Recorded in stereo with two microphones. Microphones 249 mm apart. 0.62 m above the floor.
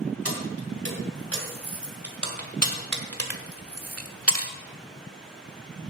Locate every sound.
0.2 s keys jangling: 70° right (ahead or behind), 3 m; by 4.5 s 60° right (ahead or behind), 1.0 m